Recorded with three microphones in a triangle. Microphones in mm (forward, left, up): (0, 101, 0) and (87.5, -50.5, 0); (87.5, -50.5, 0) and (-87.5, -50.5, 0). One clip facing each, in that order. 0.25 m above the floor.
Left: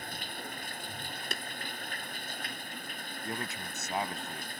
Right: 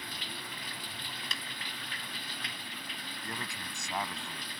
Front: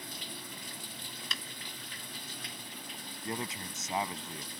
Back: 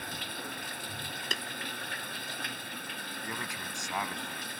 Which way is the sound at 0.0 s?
160° left.